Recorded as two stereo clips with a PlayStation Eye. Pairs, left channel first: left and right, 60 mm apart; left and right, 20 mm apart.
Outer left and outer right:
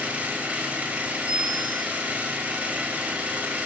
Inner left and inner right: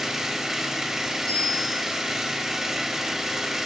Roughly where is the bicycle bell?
Left.